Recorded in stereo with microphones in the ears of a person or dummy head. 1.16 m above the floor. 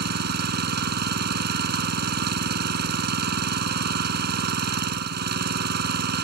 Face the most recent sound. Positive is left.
turn(degrees=-55)  # may be behind; listen again after turning